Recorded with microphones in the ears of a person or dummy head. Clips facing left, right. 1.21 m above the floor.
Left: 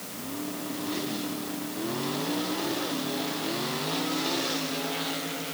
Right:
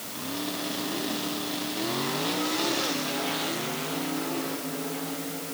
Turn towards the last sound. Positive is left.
No sound to turn to.